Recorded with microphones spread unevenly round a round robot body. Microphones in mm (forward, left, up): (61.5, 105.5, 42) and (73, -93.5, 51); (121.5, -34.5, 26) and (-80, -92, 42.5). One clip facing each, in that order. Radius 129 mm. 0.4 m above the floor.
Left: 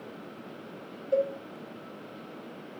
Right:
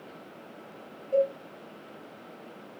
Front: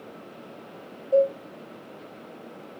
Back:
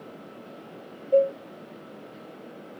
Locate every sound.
1.1 s a cowbell: 120° left, 0.9 m